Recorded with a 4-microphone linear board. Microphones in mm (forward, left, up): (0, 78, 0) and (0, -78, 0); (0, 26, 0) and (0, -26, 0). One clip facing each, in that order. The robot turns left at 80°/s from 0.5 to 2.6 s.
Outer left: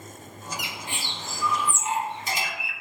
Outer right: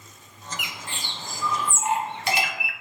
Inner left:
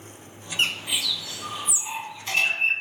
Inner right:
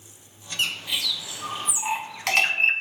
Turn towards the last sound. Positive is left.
turn(degrees=-55)  # may be behind; listen again after turning